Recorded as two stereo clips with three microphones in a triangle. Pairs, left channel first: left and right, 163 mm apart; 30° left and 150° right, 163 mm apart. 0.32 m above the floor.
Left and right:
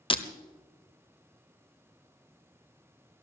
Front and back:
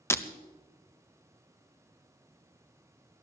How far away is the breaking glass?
About 0.8 m.